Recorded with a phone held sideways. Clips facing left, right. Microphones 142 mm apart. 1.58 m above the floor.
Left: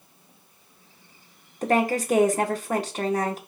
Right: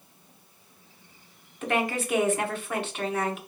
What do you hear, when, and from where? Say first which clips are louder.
1.6 s a woman speaking: left 5 dB; 40° left (ahead or behind), 0.9 m